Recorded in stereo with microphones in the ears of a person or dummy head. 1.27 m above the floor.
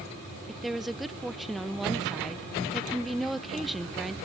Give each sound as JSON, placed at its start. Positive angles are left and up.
{"t": 0.5, "sound": "a woman speaking", "side_deg": -5, "distance_m": 0.5}